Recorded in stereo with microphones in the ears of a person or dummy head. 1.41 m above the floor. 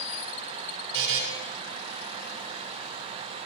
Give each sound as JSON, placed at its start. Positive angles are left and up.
{"t": 0.9, "sound": "a buzzer", "side_deg": -80, "distance_m": 5.0}